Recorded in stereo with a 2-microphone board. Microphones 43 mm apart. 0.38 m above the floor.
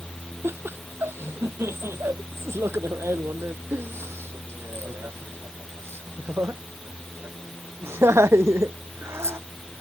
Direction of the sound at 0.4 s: 65° right (ahead or behind).